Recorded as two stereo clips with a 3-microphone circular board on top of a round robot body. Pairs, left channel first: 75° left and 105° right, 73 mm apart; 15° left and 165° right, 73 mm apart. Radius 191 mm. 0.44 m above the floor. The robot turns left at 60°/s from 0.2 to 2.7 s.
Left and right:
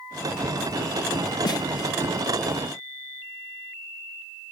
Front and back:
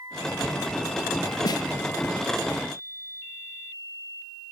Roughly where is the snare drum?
Ahead left.